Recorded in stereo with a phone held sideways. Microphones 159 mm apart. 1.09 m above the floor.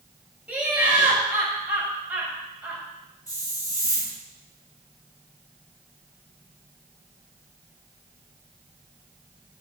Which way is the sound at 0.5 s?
10° right (ahead or behind).